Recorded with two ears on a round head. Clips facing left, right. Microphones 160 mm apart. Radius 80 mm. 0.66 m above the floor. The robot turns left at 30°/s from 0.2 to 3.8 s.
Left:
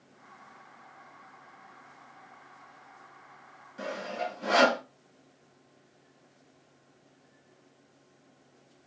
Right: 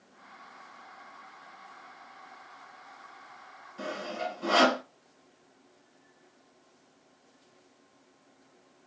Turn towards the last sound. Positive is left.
turn(degrees=15)  # may be behind; listen again after turning